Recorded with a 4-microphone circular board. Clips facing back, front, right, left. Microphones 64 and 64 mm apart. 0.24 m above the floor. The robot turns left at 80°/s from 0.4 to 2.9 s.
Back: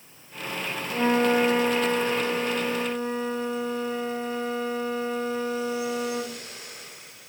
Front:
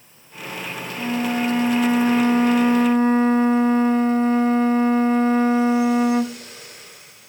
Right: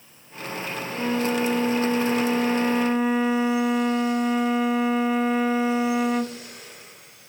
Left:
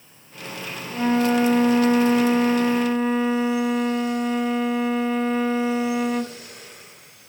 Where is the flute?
155° left, 0.5 m; by 6.4 s 5° right, 0.5 m.